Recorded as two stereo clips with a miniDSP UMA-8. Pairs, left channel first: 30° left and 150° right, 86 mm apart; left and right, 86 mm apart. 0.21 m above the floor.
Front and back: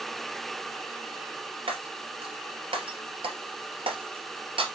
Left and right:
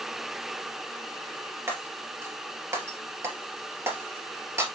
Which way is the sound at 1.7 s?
150° right.